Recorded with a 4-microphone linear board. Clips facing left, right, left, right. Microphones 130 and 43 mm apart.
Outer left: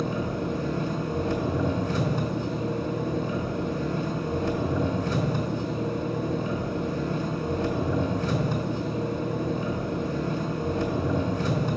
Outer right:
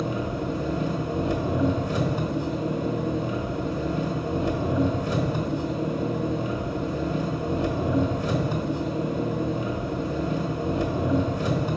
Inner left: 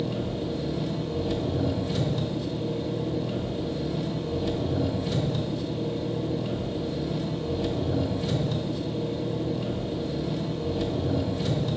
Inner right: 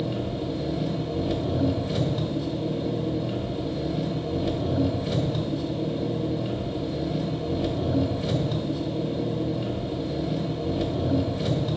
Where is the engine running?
10° right (ahead or behind), 1.2 m.